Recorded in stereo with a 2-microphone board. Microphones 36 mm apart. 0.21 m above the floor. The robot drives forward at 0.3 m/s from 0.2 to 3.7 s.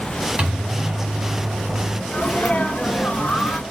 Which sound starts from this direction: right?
A microwave, at 0.4 s.